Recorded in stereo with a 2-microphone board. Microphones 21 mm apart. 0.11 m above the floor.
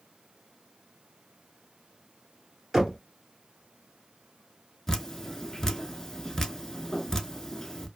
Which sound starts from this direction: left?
Dripping, at 4.9 s.